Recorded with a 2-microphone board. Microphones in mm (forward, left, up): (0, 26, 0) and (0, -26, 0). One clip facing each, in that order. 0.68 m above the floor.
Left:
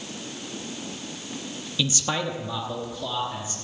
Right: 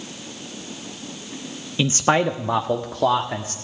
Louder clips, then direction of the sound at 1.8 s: Right 8 dB; 30° right (ahead or behind).